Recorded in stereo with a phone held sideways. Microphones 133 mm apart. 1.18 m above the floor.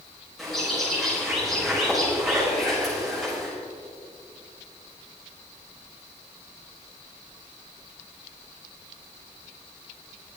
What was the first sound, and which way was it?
A bird, centre (ahead or behind).